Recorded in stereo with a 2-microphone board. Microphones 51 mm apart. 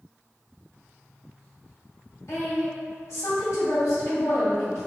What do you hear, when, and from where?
2.3 s a woman speaking: 75° left (ahead or behind), 1.8 m